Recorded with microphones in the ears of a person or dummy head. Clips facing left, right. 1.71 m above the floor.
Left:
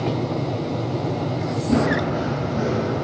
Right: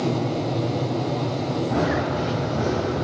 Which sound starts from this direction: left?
Running footsteps, at 1.7 s.